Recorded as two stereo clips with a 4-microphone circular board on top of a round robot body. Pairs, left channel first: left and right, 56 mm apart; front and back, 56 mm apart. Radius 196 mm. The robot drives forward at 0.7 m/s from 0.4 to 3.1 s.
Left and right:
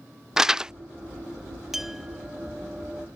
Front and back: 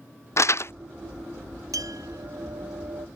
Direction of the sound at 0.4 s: 10° right.